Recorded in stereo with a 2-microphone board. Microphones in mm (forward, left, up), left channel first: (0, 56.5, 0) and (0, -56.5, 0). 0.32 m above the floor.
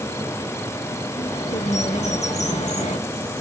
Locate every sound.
1.1 s a bird: 85° left, 1.7 m